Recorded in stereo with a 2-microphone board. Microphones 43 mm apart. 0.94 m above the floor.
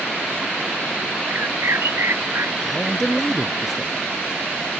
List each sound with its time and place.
1.3 s a bird: 85° right
2.6 s a man speaking: centre (ahead or behind)